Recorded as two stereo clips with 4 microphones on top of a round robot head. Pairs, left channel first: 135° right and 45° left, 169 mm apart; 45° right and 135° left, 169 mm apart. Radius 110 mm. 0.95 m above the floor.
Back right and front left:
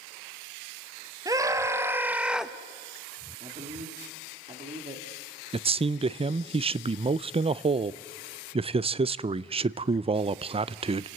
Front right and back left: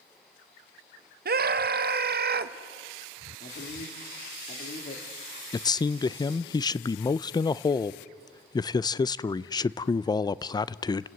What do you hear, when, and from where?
1.2 s a scream: 115° left, 1.7 m; by 2.5 s 135° left, 1.1 m
3.4 s a man speaking: 5° right, 3 m
5.5 s a man speaking: 10° left, 0.5 m